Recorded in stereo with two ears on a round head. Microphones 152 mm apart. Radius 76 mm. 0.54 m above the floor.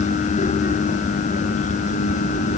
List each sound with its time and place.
Only background noise.